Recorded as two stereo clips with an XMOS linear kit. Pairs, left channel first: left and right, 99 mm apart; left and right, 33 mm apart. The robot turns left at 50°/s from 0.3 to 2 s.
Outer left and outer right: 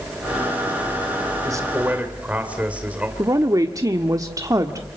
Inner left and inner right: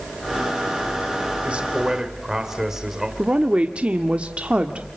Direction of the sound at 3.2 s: 35° right (ahead or behind).